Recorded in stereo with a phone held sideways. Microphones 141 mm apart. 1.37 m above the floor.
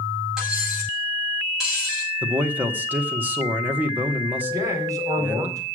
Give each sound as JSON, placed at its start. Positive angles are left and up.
{"t": 0.4, "sound": "cutlery clinking", "side_deg": -5, "distance_m": 6.5}
{"t": 2.2, "sound": "a man speaking", "side_deg": -15, "distance_m": 1.5}
{"t": 4.5, "sound": "a man speaking", "side_deg": -25, "distance_m": 4.0}